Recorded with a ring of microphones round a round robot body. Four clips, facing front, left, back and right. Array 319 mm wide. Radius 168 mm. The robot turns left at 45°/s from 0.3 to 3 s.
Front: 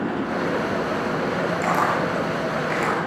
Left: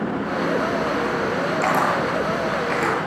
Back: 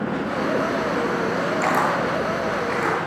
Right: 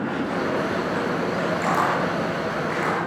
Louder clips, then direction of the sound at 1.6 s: Left 2 dB, even; 115° left.